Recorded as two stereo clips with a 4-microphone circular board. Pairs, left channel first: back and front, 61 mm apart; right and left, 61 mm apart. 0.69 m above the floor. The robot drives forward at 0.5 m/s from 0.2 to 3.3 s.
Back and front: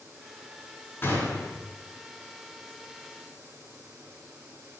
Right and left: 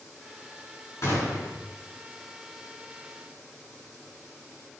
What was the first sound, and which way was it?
A gunshot, 130° right.